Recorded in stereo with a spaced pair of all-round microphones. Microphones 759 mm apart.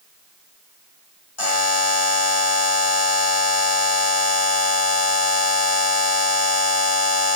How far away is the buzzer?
About 1.4 m.